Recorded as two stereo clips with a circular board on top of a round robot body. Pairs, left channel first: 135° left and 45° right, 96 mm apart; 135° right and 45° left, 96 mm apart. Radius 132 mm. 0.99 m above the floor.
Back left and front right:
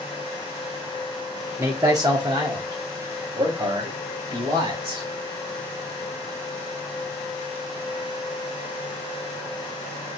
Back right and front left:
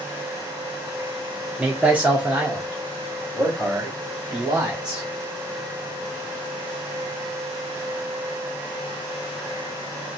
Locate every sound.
1.6 s a man speaking: 15° right, 0.9 m; by 5.1 s 35° right, 2.5 m